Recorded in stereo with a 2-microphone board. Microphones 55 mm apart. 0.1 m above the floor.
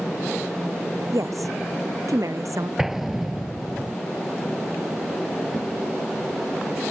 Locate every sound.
1.1 s a woman speaking: 75° right (ahead or behind); by 2.7 s 70° right (ahead or behind)
2.8 s an explosion: 10° right (ahead or behind)